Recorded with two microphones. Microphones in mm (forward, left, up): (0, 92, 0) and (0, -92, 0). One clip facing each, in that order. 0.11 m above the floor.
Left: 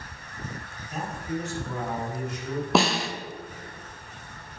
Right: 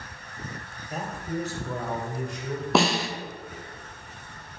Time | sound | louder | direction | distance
0.9 | a man speaking | even | 40° right (ahead or behind) | 2.5 m
2.8 | a snare drum | right 1 dB | centre (ahead or behind) | 0.8 m